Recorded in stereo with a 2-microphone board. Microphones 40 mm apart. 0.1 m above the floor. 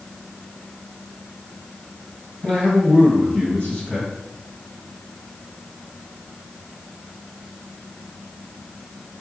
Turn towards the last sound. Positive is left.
turn(degrees=30)  # may be behind; listen again after turning